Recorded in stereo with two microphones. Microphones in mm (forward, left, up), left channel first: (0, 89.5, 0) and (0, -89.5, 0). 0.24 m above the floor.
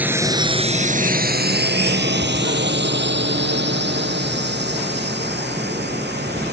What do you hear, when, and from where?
0.0 s a drone: 10° right (ahead or behind); by 6.5 s 70° right (ahead or behind)